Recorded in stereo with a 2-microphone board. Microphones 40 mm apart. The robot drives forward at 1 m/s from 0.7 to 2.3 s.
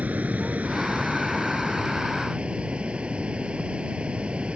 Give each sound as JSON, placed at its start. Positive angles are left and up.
{"t": 0.0, "sound": "running water", "side_deg": -45}